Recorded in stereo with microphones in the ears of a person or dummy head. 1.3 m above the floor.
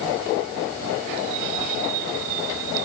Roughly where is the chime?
I don't hear a chime.